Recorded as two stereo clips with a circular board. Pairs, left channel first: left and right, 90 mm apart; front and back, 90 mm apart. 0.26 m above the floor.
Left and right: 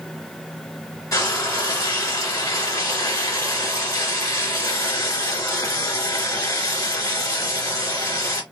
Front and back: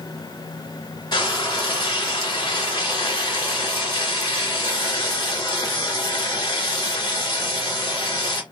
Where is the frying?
35° left, 2.5 m.